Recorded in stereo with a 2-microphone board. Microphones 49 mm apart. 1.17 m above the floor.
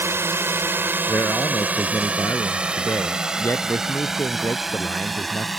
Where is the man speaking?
65° left (ahead or behind).